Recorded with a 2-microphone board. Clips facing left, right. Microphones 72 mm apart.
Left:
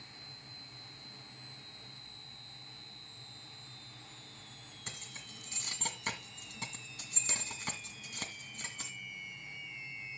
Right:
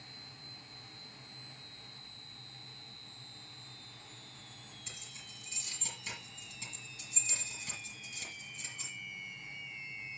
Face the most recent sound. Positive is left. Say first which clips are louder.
# left 3 dB
turn(degrees=60)  # may be behind; listen again after turning